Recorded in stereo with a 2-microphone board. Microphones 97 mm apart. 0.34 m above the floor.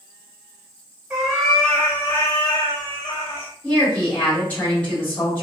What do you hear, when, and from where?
1.1 s a cat meowing: 5° right (ahead or behind), 0.9 m; by 3.5 s 65° left (ahead or behind), 1.0 m
3.6 s a woman speaking: 15° left (ahead or behind), 1.7 m